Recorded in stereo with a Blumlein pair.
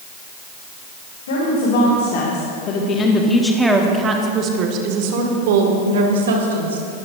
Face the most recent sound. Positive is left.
turn(degrees=-65)